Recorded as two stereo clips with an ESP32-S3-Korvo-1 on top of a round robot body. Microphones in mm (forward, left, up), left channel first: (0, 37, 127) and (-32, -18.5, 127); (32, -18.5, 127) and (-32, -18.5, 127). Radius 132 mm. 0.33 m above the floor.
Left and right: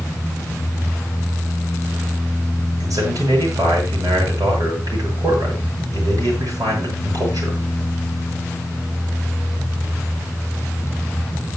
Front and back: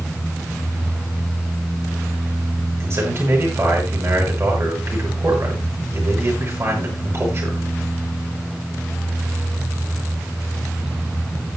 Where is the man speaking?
135° right, 7 m.